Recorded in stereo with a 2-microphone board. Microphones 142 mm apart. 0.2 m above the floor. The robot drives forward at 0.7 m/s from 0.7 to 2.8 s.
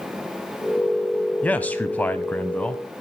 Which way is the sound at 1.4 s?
10° left (ahead or behind).